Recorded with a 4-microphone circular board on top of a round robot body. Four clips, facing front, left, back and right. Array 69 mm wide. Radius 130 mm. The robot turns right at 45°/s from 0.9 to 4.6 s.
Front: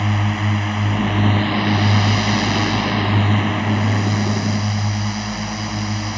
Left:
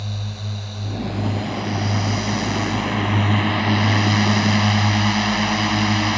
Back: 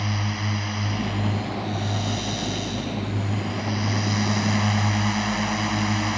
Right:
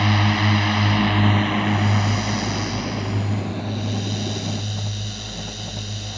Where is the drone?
65° right; by 6.2 s 105° left.